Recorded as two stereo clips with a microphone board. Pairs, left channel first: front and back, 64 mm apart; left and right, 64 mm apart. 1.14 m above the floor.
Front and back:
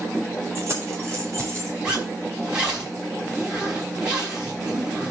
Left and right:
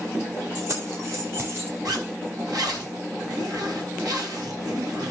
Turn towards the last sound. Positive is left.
turn(degrees=-110)